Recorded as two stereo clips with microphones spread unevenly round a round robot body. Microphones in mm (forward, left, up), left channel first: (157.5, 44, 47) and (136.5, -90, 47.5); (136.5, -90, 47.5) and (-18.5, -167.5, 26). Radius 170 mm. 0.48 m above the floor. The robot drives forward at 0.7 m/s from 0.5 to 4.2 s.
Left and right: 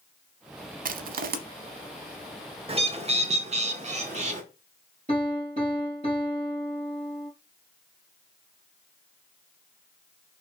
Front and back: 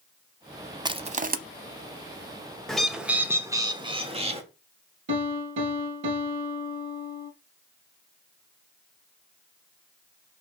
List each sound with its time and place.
0.8 s crushing: 80° right, 0.7 m; by 1.4 s 110° right, 0.8 m
2.7 s a bird: 65° right, 1.6 m; by 4.4 s 115° right, 1.6 m
5.1 s a piano: 165° right, 2.5 m